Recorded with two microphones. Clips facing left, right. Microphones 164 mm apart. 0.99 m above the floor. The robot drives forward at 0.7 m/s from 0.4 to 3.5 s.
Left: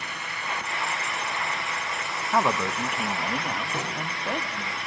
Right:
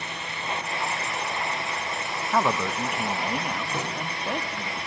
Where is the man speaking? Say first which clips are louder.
Even; centre (ahead or behind), 0.5 m.